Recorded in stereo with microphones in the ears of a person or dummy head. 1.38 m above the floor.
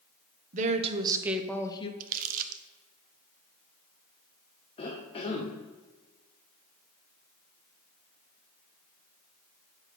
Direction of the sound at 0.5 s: 45° right (ahead or behind).